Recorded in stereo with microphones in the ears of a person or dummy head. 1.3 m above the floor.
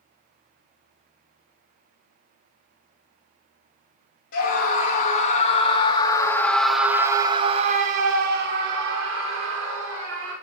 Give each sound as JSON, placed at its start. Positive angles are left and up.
{"t": 4.3, "sound": "a scream", "side_deg": 50, "distance_m": 1.9}